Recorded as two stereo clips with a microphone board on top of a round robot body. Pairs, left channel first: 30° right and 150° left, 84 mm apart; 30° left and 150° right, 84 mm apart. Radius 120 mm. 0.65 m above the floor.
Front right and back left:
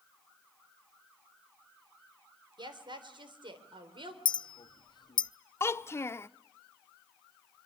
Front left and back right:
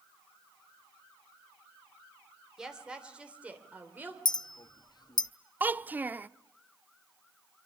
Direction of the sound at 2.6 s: 125° left.